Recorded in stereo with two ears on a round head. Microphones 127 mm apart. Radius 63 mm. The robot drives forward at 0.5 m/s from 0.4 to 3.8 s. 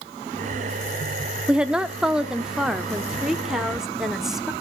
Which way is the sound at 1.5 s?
10° right (ahead or behind).